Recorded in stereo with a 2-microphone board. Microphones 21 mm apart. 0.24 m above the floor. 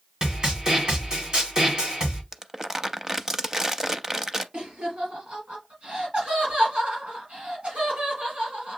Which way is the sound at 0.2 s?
30° right (ahead or behind).